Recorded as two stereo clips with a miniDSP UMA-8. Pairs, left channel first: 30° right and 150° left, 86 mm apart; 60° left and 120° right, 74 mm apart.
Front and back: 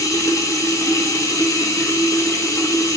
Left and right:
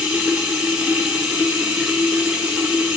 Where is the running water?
50° right, 0.8 m.